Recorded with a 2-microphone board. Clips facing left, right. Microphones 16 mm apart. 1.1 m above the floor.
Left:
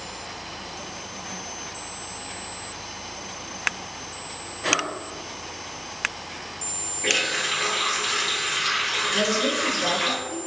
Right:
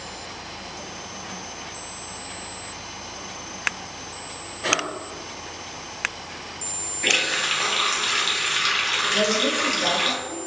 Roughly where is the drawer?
Centre.